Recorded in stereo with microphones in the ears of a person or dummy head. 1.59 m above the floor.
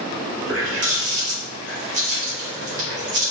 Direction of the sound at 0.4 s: 65° right (ahead or behind).